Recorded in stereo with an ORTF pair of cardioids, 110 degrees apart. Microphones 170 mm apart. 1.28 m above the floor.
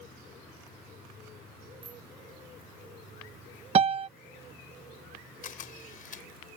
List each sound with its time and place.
1.8 s a bicycle bell: 30° right
3.8 s a piano: 35° right
5.4 s a camera shutter: 55° left